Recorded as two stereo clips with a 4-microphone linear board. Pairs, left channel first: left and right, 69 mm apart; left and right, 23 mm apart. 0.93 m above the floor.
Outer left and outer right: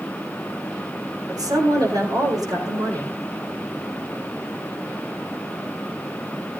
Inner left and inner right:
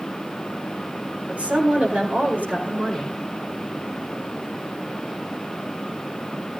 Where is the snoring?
No snoring in this recording.